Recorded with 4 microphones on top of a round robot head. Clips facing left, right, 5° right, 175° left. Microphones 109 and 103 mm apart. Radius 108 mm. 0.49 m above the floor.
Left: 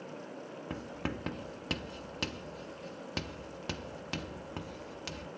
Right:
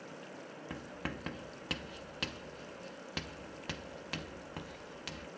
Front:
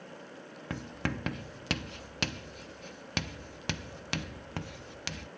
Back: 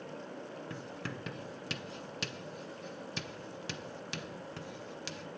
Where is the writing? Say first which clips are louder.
Left 4 dB, front 5 dB; 20° left, 0.5 m.